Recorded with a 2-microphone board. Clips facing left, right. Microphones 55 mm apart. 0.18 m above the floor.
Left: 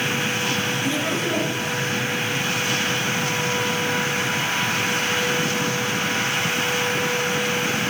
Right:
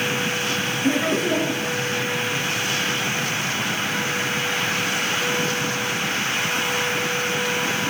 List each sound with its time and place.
0.8 s laughter: 40° right (ahead or behind), 3 m